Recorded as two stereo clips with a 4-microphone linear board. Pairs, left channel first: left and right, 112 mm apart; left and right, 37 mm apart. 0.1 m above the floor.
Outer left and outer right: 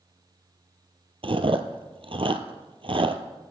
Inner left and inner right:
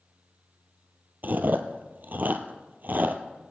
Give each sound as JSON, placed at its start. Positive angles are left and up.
{"t": 1.2, "sound": "chewing", "side_deg": -55, "distance_m": 0.8}